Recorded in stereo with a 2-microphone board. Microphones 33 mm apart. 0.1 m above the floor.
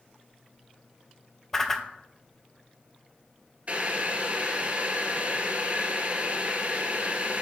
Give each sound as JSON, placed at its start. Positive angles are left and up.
{"t": 1.5, "sound": "a whoosh", "side_deg": 10, "distance_m": 0.6}
{"t": 3.7, "sound": "boiling", "side_deg": -40, "distance_m": 0.9}